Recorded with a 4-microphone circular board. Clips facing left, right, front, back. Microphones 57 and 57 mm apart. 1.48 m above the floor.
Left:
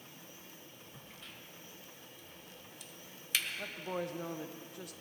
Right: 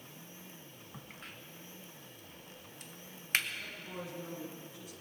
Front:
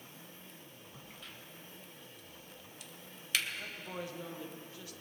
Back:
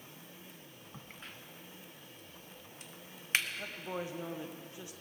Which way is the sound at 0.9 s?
130° right.